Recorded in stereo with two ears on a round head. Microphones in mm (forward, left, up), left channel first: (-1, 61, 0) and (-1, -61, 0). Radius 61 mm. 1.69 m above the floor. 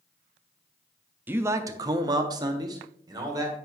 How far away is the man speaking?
About 0.5 m.